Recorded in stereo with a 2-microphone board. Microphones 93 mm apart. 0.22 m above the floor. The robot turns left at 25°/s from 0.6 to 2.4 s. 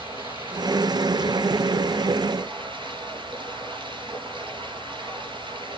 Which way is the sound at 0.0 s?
70° right.